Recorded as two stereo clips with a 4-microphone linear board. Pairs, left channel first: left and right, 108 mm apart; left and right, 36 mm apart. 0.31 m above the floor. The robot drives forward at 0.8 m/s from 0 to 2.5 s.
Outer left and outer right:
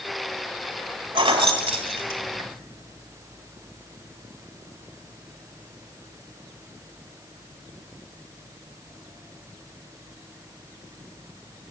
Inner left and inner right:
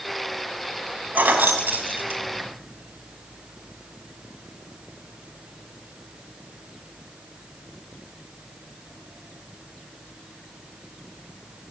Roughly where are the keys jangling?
Right.